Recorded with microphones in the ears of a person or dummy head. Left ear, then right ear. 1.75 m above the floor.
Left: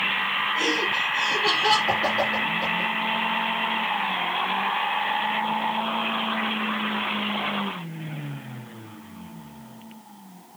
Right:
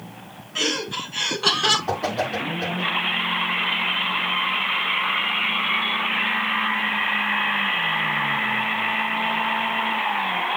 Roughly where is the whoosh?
Right.